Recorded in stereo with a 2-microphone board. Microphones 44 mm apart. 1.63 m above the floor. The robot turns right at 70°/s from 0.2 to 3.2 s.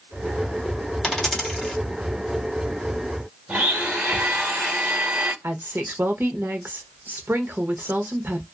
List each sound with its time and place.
1.0 s a dropped coin: 20° left (ahead or behind), 1.4 m; by 1.8 s centre (ahead or behind), 1.4 m
3.5 s a blender: 35° right (ahead or behind), 1.2 m
5.4 s a woman speaking: 60° right (ahead or behind), 0.8 m